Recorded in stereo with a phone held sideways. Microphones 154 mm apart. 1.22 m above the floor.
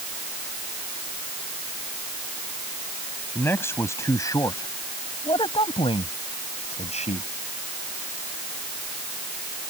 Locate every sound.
3.4 s a man speaking: 15° left (ahead or behind); by 7.3 s 50° left (ahead or behind)